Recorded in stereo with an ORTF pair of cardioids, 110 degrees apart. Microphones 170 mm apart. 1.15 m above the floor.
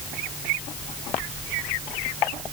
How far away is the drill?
No drill in this recording.